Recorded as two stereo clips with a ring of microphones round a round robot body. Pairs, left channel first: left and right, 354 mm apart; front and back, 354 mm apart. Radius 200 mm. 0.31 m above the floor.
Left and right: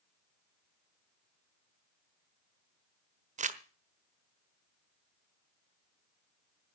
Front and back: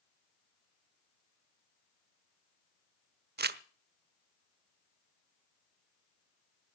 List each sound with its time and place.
3.4 s crumpling: 140° right, 1.2 m